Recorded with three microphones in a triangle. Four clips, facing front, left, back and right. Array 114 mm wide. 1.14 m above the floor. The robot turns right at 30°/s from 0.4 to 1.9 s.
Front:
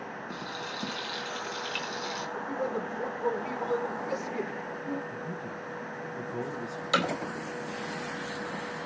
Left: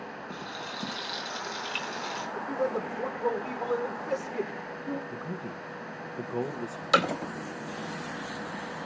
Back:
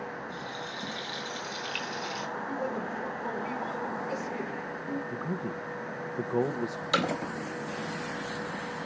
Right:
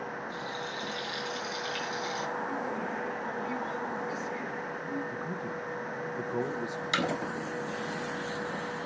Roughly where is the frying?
Ahead left.